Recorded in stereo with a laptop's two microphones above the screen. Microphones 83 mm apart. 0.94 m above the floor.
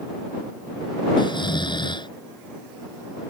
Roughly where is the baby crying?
No baby crying in this recording.